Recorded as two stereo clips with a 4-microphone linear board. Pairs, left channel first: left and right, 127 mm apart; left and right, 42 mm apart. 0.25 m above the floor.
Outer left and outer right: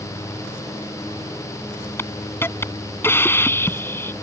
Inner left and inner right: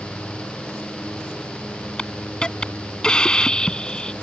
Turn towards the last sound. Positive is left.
turn(degrees=20)  # may be behind; listen again after turning